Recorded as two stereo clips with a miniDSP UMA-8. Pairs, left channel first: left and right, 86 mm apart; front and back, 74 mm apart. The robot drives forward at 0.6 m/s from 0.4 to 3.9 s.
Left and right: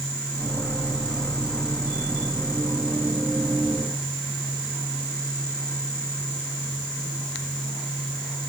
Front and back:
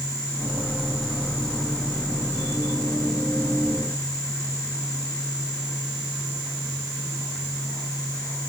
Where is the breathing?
I don't hear breathing.